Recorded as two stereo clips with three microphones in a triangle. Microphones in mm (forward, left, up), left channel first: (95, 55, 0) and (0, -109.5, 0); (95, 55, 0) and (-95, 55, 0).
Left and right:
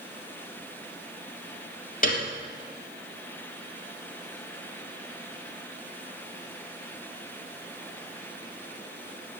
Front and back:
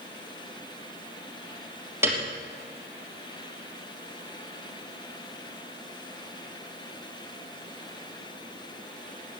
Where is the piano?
105° left, 3 m.